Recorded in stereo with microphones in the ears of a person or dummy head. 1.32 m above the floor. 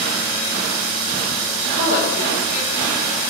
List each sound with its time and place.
1.7 s a woman speaking: 40° right (ahead or behind), 0.9 m